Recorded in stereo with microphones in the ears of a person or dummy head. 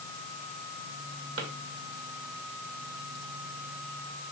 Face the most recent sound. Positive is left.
turn(degrees=-70)  # may be behind; listen again after turning